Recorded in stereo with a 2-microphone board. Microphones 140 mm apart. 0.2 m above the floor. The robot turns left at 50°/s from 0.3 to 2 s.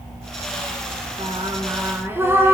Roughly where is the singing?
Behind right.